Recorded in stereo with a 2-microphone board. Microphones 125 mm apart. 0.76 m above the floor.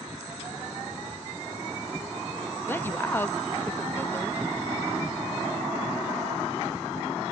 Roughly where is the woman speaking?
Centre.